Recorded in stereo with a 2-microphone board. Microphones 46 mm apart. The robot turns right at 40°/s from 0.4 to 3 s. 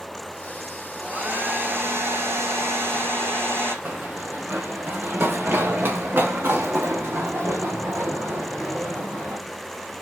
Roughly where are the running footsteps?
Right.